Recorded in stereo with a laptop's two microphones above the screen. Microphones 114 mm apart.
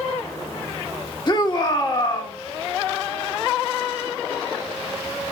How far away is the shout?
About 1.7 m.